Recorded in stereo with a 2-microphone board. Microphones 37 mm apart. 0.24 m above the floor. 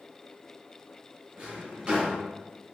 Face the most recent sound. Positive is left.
turn(degrees=-25)  # may be behind; listen again after turning